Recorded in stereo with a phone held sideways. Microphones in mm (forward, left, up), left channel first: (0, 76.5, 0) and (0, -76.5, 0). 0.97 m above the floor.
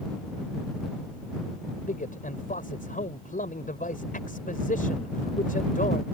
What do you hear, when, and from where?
1.9 s a man speaking: 65° left (ahead or behind)